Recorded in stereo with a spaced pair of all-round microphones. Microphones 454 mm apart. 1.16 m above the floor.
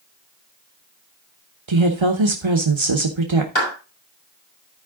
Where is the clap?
80° left, 5 m.